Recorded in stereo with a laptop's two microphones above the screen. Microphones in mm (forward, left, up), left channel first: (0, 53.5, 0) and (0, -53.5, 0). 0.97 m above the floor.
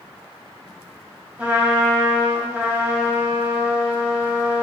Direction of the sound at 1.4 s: 15° right (ahead or behind).